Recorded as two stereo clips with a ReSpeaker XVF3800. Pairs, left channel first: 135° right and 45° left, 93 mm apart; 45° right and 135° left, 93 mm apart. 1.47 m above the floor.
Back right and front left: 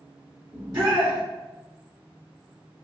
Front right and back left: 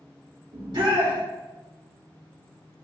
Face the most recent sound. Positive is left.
turn(degrees=100)